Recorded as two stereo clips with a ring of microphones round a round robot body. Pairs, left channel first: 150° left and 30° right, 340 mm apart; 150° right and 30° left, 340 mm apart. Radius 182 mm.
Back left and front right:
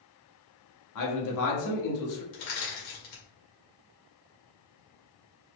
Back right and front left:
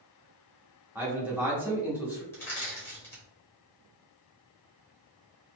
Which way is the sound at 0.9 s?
115° left.